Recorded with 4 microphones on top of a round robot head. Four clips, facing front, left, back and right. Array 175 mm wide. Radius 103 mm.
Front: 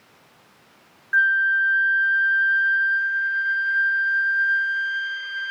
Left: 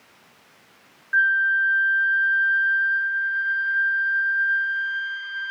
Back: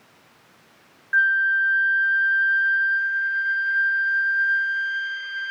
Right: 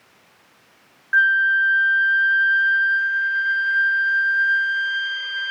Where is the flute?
85° right.